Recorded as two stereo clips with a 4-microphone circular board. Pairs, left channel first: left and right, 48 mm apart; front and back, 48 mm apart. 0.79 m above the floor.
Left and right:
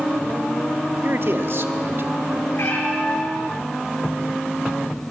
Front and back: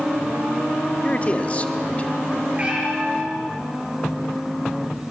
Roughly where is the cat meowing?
Behind left.